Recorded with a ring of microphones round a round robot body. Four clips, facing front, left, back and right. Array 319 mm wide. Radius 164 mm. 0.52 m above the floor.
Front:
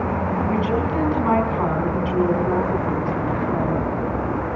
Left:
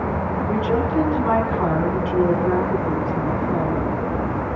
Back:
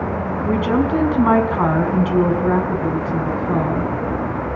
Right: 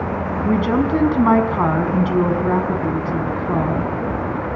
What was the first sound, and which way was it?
A woman speaking, 130° right.